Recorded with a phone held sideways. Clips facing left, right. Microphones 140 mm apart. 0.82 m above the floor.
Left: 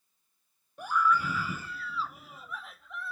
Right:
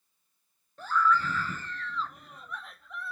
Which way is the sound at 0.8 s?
15° left (ahead or behind).